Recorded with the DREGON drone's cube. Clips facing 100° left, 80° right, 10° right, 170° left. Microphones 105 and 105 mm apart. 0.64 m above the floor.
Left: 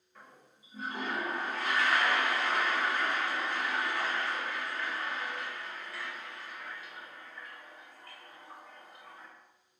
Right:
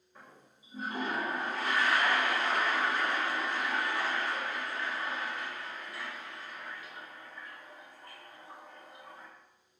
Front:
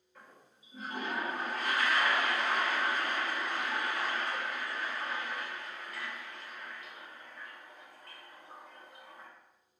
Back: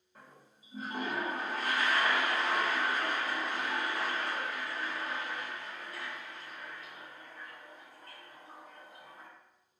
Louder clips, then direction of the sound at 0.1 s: Even, even; 145° right.